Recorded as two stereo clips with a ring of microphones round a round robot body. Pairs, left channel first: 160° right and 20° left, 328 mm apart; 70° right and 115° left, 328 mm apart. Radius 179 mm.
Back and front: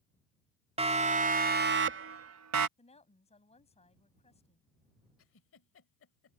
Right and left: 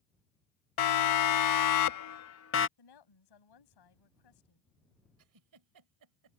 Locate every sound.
0.8 s a siren: 50° right; by 2.7 s 15° right
2.8 s a woman speaking: 85° right
5.2 s a giggle: 150° left